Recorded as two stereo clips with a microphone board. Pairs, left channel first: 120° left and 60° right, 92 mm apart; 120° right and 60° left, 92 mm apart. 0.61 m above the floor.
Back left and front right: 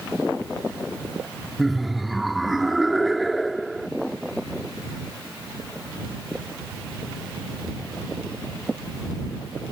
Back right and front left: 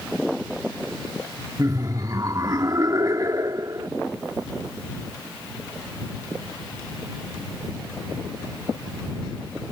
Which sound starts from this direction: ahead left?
Laughter, at 1.6 s.